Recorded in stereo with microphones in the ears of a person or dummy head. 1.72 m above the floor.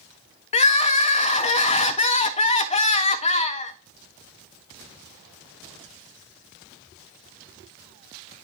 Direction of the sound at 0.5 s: 35° left (ahead or behind).